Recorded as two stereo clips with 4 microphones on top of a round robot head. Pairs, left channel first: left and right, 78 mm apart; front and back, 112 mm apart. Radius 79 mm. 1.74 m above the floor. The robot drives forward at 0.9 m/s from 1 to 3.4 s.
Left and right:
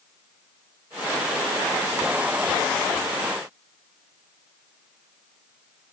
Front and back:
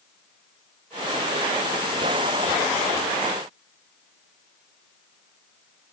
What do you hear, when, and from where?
Only background noise.